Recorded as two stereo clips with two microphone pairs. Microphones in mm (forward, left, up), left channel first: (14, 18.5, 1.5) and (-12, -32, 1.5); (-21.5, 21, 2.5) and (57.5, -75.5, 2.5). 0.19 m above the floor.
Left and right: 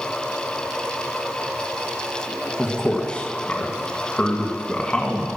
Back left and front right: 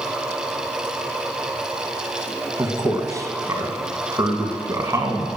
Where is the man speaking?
5° right, 1.9 m.